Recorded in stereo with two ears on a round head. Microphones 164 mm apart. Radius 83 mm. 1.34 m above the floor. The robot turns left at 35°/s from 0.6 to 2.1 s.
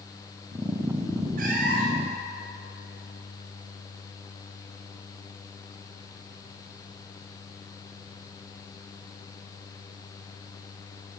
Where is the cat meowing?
50° right (ahead or behind), 4 m; by 2.1 s 75° right (ahead or behind), 4 m.